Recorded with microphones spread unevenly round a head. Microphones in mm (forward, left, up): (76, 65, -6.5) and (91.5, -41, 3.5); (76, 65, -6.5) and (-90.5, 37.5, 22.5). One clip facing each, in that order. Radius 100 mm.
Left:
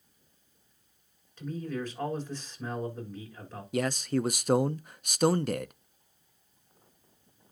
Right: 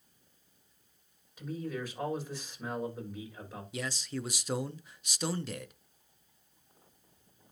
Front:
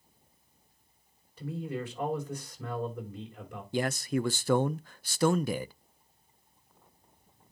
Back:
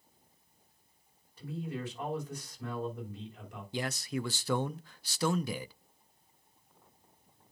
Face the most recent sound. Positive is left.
turn(degrees=55)